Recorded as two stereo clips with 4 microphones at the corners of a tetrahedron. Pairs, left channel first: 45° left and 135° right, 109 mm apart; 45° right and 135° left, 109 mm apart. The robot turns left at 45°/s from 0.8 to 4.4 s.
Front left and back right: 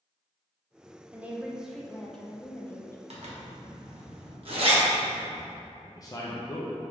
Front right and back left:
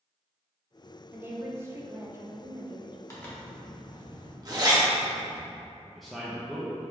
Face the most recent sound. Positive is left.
turn(degrees=45)